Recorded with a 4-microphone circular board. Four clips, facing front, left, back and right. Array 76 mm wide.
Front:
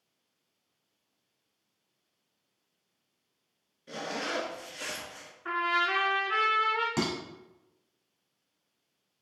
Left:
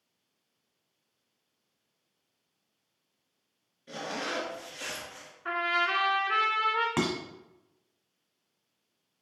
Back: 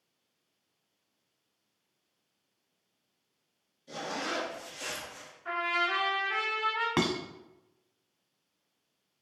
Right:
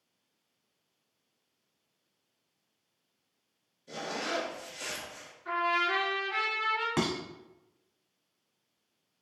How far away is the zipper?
About 1.3 m.